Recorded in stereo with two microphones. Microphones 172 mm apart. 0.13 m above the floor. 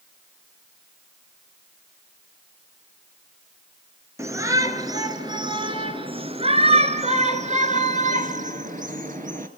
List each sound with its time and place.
4.2 s a shout: 15° right (ahead or behind), 2.5 m; by 9.5 s 50° right (ahead or behind), 2.5 m